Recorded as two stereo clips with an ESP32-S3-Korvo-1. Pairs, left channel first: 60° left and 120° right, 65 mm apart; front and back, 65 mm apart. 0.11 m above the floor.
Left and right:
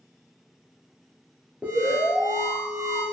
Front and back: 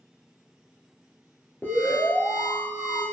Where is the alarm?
60° right, 1.2 m.